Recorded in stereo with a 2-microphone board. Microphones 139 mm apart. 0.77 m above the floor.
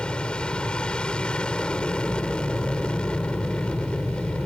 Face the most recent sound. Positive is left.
turn(degrees=5)  # may be behind; listen again after turning